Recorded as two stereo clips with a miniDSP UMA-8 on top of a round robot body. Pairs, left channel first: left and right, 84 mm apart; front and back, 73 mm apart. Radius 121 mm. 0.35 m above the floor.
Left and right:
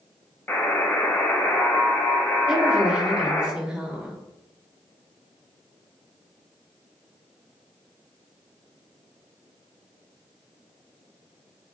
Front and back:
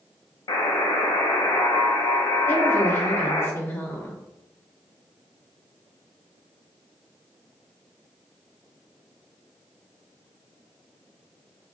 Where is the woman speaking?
20° right, 1.2 m.